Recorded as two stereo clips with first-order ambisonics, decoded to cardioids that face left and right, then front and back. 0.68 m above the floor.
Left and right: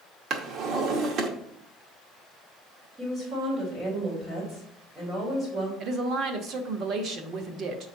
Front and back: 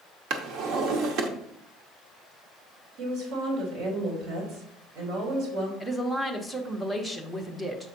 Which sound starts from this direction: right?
A woman speaking, at 5.8 s.